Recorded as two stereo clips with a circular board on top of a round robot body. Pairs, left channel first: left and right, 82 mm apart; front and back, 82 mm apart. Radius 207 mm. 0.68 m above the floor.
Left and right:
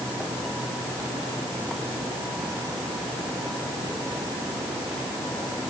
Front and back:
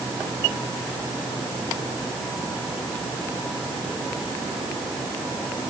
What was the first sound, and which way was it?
Only background noise.